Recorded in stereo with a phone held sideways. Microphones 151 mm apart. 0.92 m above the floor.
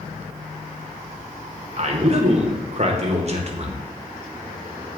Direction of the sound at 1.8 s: 45° right (ahead or behind).